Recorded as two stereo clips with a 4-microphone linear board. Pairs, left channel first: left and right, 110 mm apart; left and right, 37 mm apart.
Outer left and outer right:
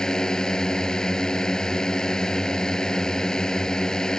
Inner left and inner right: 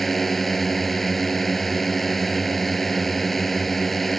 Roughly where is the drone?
Centre.